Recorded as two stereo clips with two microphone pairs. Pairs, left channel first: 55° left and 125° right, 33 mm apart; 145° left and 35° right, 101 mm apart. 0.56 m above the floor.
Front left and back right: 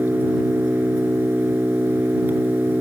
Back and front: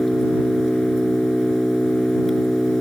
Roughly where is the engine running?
Behind right.